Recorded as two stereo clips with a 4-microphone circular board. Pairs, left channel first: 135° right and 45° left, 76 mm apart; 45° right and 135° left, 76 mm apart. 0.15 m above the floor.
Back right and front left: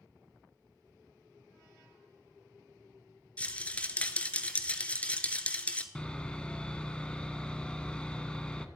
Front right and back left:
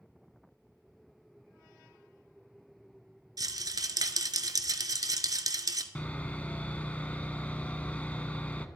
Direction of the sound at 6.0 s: 80° right.